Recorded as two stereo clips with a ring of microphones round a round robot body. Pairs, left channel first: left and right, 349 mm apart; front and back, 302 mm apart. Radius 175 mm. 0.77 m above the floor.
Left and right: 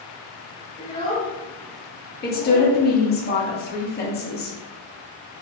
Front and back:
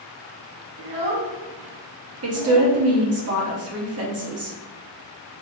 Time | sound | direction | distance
0.8 | a child speaking | 165° left | 1.4 m
2.2 | a woman speaking | 150° left | 1.2 m